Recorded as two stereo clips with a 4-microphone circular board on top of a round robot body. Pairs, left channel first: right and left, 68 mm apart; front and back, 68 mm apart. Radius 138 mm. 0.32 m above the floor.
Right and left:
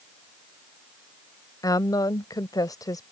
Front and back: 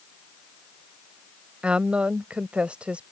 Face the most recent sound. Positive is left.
turn(degrees=-110)